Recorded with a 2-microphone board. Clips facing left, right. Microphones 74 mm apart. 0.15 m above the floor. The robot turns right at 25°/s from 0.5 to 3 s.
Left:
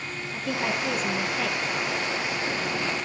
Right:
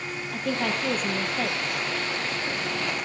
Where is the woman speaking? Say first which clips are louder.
Right 1 dB; 60° right (ahead or behind), 4.5 m; by 1.6 s 35° right (ahead or behind), 4.5 m.